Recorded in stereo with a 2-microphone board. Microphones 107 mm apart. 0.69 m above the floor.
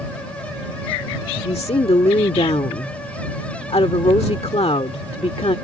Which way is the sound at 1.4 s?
70° left (ahead or behind).